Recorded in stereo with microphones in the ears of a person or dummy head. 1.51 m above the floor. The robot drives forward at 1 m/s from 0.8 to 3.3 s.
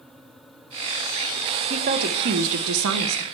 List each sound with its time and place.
1.7 s a woman speaking: 40° right (ahead or behind), 1.6 m; by 3.2 s 70° right (ahead or behind), 1.1 m